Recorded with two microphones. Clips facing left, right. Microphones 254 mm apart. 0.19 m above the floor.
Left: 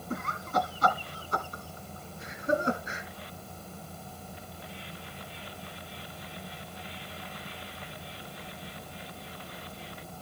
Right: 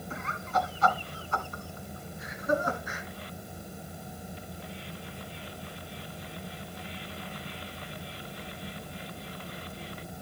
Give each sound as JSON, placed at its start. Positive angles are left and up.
{"t": 0.1, "sound": "laughter", "side_deg": 50, "distance_m": 2.0}